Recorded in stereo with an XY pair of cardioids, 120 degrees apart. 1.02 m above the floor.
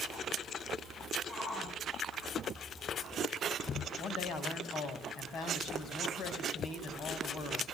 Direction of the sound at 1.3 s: 25° left.